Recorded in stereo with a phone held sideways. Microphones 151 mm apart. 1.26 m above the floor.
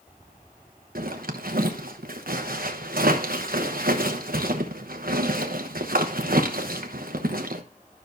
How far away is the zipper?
About 1.0 m.